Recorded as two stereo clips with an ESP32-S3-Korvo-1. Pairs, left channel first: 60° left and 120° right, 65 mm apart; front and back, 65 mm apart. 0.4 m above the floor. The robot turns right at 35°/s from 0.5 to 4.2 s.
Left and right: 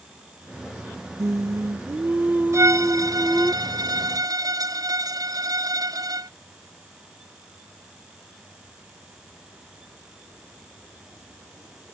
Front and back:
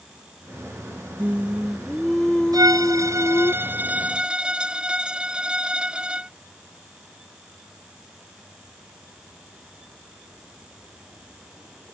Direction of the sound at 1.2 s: 115° right.